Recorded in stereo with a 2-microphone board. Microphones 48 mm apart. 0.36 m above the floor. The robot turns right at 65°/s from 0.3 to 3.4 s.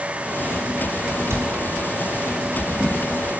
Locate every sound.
1.3 s a cupboard door: 60° right (ahead or behind), 2.5 m; by 1.5 s 70° right (ahead or behind), 2.5 m